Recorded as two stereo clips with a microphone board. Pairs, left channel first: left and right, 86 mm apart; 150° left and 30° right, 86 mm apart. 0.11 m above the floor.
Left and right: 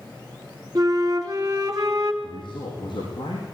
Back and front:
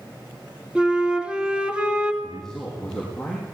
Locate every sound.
0.8 s a flute: 105° right, 1.9 m
2.2 s a man speaking: 65° left, 5 m